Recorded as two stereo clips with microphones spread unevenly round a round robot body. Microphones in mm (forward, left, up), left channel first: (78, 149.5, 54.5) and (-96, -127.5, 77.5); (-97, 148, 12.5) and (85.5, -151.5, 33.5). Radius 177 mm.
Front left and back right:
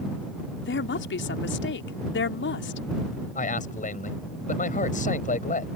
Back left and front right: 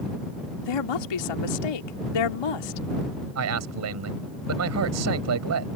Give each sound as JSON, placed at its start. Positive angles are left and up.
{"t": 0.6, "sound": "a woman speaking", "azimuth_deg": 115}
{"t": 3.4, "sound": "a man speaking", "azimuth_deg": -10}